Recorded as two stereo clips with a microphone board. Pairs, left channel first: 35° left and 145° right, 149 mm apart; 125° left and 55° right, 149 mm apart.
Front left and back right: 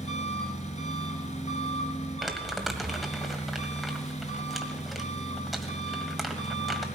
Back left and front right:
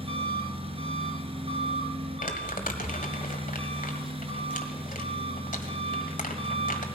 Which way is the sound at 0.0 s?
5° right.